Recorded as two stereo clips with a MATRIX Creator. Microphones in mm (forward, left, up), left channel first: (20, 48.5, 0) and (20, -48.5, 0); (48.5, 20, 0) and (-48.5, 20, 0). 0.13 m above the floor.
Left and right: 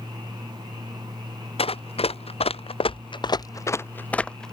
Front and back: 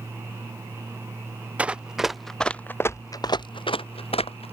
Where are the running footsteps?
105° left; by 4.5 s 5° left.